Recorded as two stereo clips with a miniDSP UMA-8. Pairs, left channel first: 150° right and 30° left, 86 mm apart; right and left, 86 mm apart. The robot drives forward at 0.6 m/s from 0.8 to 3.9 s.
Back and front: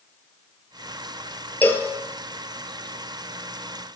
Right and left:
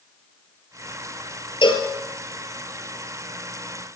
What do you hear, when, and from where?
1.6 s a cowbell: 80° right, 1.3 m; by 1.9 s 90° right, 1.3 m